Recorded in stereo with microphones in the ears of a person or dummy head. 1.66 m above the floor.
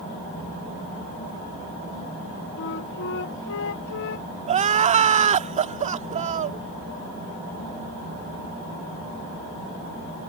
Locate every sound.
2.6 s a flute: 65° left (ahead or behind)
4.5 s crying: 35° right (ahead or behind)